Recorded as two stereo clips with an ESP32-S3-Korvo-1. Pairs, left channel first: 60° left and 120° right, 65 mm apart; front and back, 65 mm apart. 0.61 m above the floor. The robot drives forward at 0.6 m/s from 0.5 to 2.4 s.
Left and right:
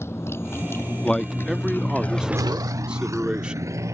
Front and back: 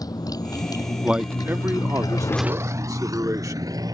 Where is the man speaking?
115° left; by 3.8 s 165° left.